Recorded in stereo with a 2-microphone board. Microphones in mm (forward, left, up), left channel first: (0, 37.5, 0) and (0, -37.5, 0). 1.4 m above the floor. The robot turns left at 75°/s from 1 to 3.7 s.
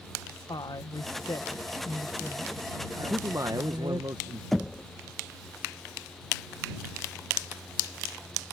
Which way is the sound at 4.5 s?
5° left (ahead or behind).